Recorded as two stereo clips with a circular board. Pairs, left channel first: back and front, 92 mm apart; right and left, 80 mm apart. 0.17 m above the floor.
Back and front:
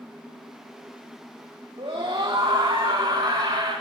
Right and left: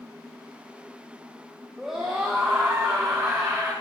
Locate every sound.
1.8 s a scream: 5° left, 5.5 m; by 3.7 s 20° left, 7.5 m